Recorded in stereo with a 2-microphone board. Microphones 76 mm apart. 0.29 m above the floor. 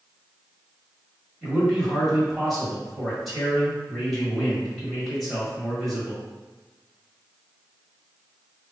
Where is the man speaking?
Centre (ahead or behind), 1.5 m.